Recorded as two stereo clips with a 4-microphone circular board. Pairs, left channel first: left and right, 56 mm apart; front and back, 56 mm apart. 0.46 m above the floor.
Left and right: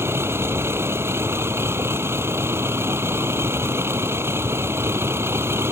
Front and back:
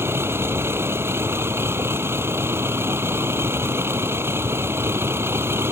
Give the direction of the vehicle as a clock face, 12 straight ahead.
4 o'clock.